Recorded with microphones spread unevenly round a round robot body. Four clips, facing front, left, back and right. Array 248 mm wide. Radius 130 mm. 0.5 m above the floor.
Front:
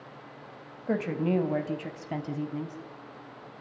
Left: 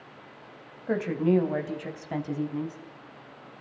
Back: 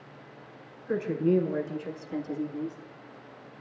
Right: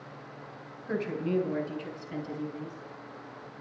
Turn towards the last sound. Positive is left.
turn(degrees=30)